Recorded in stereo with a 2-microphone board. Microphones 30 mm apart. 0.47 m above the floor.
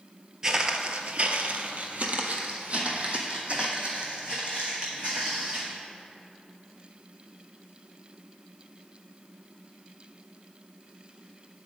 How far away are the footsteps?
About 0.6 m.